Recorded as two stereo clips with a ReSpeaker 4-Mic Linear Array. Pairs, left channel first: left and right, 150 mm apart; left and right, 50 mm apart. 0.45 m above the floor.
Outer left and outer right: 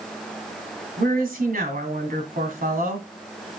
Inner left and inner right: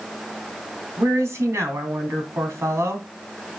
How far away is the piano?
No piano in this recording.